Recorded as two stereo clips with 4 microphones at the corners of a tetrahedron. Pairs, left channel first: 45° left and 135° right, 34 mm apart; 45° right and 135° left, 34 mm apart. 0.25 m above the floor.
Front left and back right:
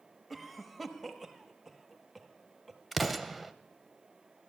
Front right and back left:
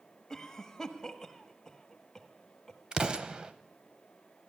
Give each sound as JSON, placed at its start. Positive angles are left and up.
{"t": 0.3, "sound": "a cough", "azimuth_deg": -35, "distance_m": 1.0}
{"t": 2.9, "sound": "an explosion", "azimuth_deg": 135, "distance_m": 0.6}